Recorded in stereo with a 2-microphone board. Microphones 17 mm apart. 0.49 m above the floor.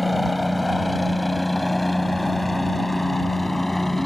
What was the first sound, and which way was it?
A helicopter, 5° right (ahead or behind).